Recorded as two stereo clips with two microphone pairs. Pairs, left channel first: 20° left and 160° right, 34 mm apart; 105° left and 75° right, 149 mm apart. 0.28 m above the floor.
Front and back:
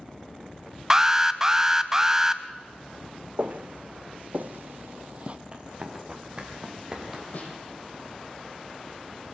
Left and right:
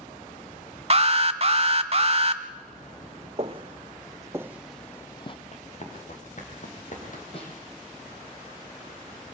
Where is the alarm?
95° right, 0.9 m.